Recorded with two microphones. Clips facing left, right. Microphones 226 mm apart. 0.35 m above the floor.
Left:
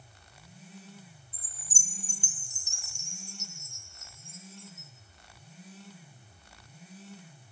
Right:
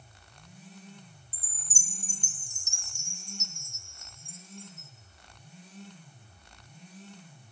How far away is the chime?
About 2.5 m.